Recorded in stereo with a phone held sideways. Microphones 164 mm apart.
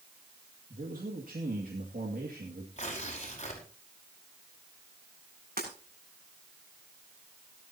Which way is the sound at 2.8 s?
45° left (ahead or behind).